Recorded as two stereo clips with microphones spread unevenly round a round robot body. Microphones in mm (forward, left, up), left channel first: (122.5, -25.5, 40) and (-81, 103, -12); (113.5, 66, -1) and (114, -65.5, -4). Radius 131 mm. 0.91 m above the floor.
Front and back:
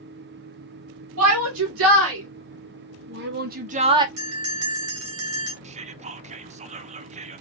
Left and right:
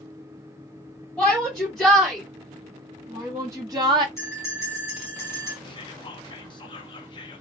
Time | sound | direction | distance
1.2 | a shout | straight behind | 2.5 m
4.2 | a bell | 170° left | 3 m
5.6 | whispering | 130° left | 0.5 m